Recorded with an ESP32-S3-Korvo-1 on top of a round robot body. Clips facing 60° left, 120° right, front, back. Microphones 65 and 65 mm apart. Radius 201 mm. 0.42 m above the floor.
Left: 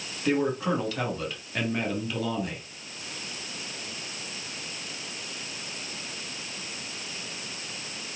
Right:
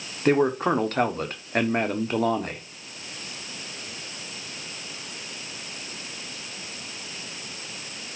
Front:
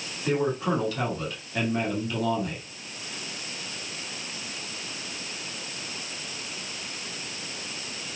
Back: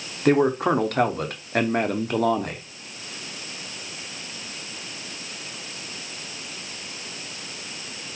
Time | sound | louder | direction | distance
0.2 | a man speaking | right 5 dB, back 7 dB | 160° right | 1.5 m